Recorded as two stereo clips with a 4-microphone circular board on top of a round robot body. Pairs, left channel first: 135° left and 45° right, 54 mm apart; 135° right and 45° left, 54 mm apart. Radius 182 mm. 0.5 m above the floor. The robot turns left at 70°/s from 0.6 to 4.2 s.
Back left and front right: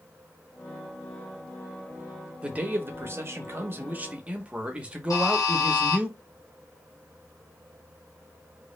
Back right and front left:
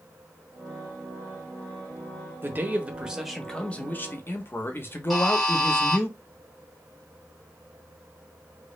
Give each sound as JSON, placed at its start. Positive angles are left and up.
{"t": 2.4, "sound": "a man speaking", "azimuth_deg": 15, "distance_m": 0.8}
{"t": 5.1, "sound": "a buzzer", "azimuth_deg": 135, "distance_m": 0.9}